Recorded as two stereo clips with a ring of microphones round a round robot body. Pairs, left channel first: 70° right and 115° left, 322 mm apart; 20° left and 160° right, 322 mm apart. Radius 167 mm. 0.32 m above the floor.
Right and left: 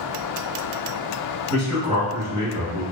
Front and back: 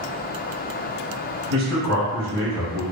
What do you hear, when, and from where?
1.5 s a man speaking: 105° right, 1.6 m